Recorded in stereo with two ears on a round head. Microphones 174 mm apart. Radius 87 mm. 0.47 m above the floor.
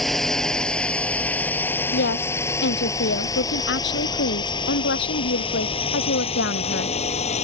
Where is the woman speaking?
60° left (ahead or behind).